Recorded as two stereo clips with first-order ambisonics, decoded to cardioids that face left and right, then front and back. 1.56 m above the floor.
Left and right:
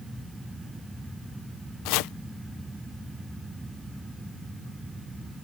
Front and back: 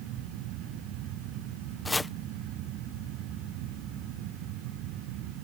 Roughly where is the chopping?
Left.